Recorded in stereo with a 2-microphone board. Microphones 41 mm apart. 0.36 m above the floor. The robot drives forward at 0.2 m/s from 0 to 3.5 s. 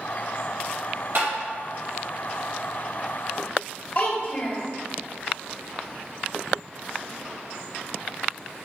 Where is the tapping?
70° right (ahead or behind), 1.9 m.